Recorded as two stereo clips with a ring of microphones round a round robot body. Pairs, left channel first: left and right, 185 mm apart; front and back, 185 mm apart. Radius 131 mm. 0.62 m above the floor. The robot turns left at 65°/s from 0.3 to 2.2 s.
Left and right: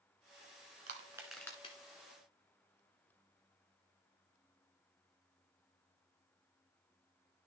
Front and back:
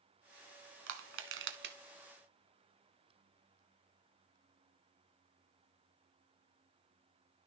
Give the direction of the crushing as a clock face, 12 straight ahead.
5 o'clock.